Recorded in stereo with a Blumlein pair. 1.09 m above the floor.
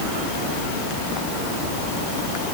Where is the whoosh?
No whoosh in this recording.